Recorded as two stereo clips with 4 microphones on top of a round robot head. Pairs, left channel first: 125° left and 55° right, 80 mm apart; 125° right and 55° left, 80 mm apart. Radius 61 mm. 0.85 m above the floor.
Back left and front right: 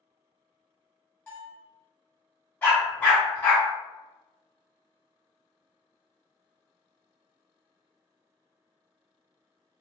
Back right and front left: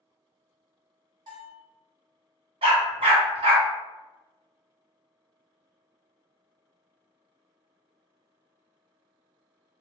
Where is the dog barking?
55° left, 1.3 m.